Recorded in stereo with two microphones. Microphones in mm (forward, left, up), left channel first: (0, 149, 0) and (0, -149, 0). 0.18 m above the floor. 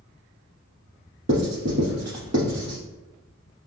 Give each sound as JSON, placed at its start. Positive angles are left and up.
{"t": 1.3, "sound": "writing", "side_deg": -65, "distance_m": 1.4}